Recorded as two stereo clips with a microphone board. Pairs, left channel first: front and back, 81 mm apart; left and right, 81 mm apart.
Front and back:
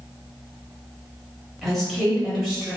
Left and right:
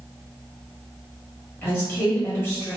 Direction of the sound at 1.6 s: 90° left.